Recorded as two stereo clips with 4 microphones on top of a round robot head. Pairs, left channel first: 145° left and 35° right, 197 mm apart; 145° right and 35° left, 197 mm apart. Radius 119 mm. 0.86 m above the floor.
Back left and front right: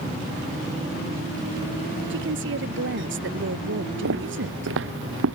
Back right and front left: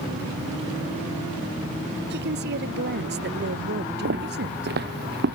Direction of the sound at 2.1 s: 5° right.